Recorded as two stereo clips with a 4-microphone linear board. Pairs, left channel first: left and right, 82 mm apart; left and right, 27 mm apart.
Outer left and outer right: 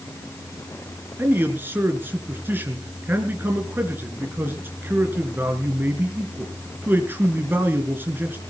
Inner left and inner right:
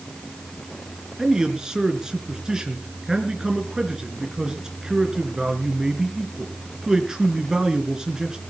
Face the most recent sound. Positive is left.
turn(degrees=-25)  # may be behind; listen again after turning